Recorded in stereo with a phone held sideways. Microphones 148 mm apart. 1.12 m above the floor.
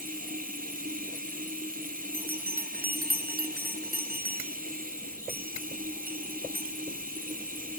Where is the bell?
85° right, 1.6 m.